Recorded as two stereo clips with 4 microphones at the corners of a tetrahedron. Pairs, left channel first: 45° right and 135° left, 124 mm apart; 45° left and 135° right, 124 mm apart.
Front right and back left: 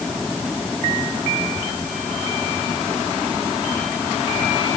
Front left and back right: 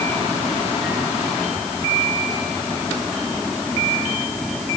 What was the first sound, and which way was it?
Only background noise.